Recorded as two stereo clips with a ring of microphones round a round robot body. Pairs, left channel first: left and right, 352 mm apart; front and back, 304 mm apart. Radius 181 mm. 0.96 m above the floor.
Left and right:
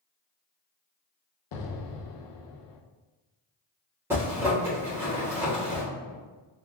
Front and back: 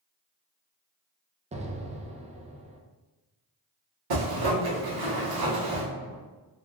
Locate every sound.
1.5 s an explosion: 110° left, 0.6 m
4.1 s a zipper: 175° right, 1.3 m